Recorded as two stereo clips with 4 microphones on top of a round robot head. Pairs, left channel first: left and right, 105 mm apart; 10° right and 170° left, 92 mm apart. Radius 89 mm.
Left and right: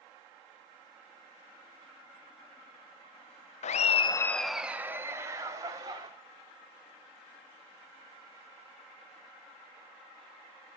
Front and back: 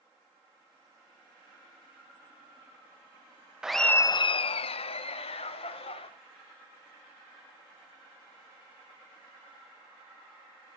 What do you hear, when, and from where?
3.6 s laughter: 85° left, 0.6 m; by 6.1 s 30° right, 2 m